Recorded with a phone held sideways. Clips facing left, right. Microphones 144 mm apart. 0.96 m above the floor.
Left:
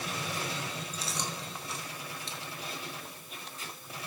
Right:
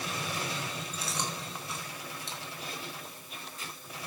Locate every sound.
0.9 s chewing: 55° right (ahead or behind), 3.5 m